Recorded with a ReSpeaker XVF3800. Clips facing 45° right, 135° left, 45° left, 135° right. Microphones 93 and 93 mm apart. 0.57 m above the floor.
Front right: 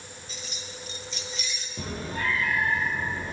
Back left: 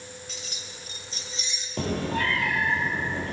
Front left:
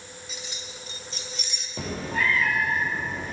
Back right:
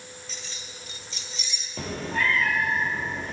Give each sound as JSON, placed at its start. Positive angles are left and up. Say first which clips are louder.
{"t": 0.3, "sound": "keys jangling", "louder": "front right 1 dB, front left 2 dB", "azimuth_deg": 125, "distance_m": 1.2}
{"t": 1.8, "sound": "a cat meowing", "louder": "back left 6 dB, even", "azimuth_deg": 130, "distance_m": 1.5}